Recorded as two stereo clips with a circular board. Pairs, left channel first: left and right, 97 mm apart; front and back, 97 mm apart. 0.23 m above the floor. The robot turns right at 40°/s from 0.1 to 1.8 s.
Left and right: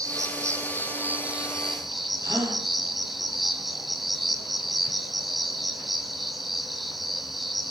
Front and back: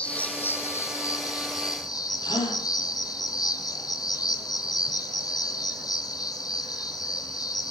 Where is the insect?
70° right, 1.6 m; by 7.7 s straight ahead, 1.6 m.